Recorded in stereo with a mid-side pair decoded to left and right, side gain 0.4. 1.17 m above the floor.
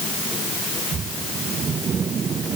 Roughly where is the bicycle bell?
No bicycle bell in this recording.